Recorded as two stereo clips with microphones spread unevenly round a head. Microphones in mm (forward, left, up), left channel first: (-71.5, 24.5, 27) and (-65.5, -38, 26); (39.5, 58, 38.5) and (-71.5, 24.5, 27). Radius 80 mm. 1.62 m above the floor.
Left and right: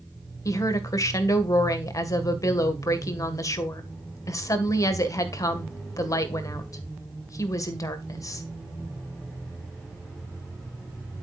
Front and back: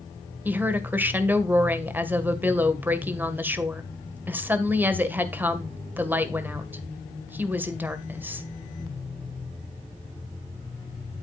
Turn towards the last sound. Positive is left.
turn(degrees=125)